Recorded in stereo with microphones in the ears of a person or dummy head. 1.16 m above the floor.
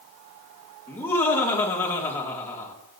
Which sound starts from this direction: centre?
Laughter, at 0.9 s.